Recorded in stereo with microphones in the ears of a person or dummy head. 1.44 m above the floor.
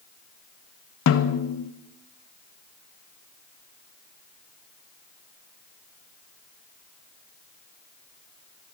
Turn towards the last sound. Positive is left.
turn(degrees=65)  # may be behind; listen again after turning